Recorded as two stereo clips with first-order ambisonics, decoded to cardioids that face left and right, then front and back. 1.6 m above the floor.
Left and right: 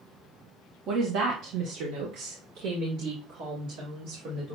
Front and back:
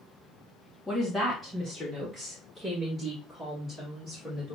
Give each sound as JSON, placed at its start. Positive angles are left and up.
{"t": 0.9, "sound": "a woman speaking", "azimuth_deg": -85, "distance_m": 0.7}